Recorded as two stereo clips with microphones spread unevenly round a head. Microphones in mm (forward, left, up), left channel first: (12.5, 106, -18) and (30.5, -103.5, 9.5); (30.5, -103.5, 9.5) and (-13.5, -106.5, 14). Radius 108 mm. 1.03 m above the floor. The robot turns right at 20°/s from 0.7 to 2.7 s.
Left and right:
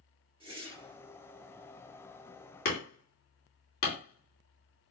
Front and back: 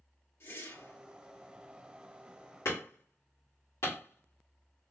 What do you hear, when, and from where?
0.4 s a whoosh: 20° right, 2 m; by 1.0 s 15° right, 2 m
2.6 s hammering: 50° left, 2 m